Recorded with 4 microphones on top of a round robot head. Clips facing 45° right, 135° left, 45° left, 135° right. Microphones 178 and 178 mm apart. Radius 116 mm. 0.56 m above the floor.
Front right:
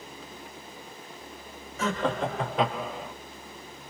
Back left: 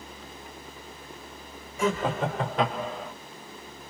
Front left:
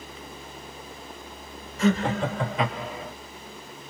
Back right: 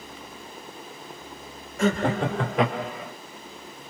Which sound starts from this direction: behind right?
Laughter, at 1.8 s.